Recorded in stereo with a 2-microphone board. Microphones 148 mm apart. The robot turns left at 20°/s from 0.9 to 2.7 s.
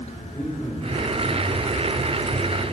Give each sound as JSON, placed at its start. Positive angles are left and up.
{"t": 0.3, "sound": "a man speaking", "side_deg": 30, "distance_m": 4.5}